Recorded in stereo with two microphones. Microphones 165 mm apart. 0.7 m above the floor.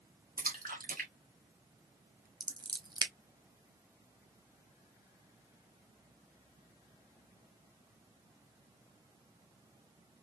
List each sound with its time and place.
0.4 s a splash: 55° right (ahead or behind), 1.3 m
2.4 s scissors: 25° right (ahead or behind), 0.8 m